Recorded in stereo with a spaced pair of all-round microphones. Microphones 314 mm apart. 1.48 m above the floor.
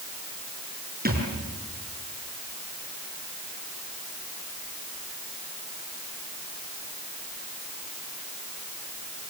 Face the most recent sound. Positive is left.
turn(degrees=-30)  # may be behind; listen again after turning